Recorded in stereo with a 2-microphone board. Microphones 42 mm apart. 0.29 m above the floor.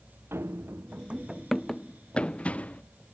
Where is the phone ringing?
I don't hear a phone ringing.